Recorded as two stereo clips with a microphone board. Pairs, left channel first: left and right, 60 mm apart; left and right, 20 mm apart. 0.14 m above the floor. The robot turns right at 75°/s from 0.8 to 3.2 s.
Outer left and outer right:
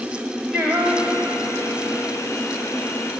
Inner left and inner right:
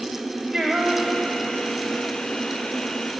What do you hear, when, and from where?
0.5 s singing: 170° right, 9.5 m; by 2.1 s 70° right, 9.5 m